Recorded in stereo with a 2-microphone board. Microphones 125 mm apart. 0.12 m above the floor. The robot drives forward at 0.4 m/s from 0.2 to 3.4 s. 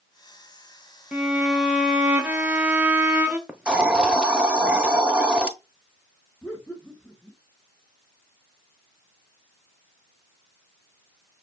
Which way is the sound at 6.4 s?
10° left (ahead or behind).